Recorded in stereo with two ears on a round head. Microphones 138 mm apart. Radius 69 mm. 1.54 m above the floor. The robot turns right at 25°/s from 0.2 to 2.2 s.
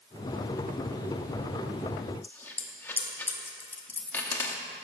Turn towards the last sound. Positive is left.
turn(degrees=15)  # may be behind; listen again after turning